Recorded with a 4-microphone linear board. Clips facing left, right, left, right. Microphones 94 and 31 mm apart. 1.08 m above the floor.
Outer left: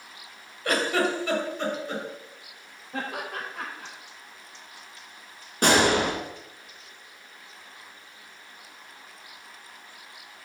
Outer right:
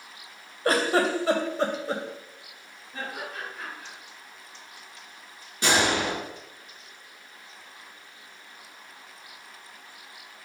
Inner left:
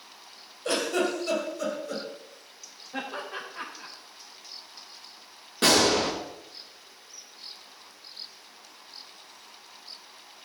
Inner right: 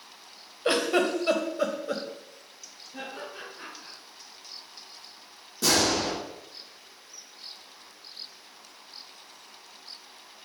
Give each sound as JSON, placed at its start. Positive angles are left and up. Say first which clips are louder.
{"t": 0.7, "sound": "a giggle", "louder": "outer right 2 dB, inner right 2 dB", "side_deg": -35, "distance_m": 2.5}
{"t": 2.9, "sound": "laughter", "louder": "outer left 3 dB, inner left 4 dB", "side_deg": 80, "distance_m": 4.5}
{"t": 5.6, "sound": "a gunshot", "louder": "outer left 3 dB, inner left 3 dB", "side_deg": 55, "distance_m": 4.5}